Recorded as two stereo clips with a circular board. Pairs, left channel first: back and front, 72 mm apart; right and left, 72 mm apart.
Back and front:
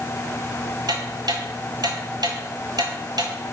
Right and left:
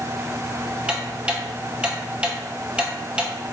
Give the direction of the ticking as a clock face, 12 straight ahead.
11 o'clock.